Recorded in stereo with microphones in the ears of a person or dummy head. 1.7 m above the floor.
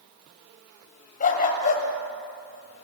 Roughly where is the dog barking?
Left.